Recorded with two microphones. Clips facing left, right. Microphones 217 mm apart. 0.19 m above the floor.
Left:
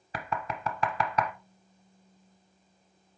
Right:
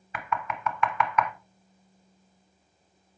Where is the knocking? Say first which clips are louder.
Right 2 dB; 35° left (ahead or behind), 0.9 m.